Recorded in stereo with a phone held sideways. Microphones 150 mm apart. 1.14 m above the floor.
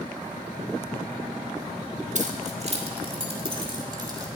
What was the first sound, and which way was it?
Keys jangling, 55° right (ahead or behind).